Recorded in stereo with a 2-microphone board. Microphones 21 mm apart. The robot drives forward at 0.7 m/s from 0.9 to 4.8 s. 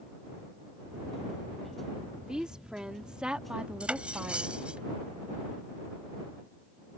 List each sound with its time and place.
2.2 s a woman speaking: 35° right (ahead or behind); by 4.8 s 70° right (ahead or behind)
3.8 s cutlery clinking: 60° right (ahead or behind); by 4.8 s 50° right (ahead or behind)